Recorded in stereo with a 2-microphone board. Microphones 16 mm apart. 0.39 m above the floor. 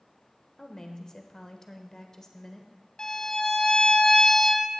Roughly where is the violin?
Left.